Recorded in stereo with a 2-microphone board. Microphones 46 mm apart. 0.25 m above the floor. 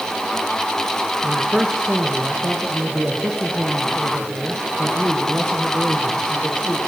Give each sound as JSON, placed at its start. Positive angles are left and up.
{"t": 1.2, "sound": "a man speaking", "side_deg": -15, "distance_m": 4.0}